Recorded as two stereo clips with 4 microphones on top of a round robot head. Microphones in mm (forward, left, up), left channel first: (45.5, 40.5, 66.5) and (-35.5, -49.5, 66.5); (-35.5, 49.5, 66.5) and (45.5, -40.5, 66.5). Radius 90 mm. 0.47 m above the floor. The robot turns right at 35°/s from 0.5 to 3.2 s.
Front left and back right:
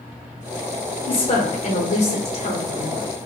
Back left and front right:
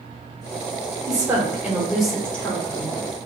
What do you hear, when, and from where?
1.1 s a woman speaking: 5° left, 1.9 m; by 3.1 s 80° left, 1.9 m